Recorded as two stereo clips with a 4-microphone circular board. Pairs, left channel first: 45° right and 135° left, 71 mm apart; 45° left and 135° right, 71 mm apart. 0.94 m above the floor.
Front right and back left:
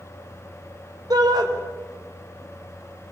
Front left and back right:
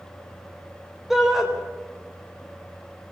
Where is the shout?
140° left, 4 m.